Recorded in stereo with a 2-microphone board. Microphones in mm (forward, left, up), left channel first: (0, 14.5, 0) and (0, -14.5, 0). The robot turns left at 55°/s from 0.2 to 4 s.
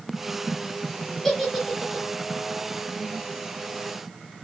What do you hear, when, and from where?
1.2 s a giggle: 20° left (ahead or behind), 0.8 m; by 2.0 s 20° right (ahead or behind), 0.8 m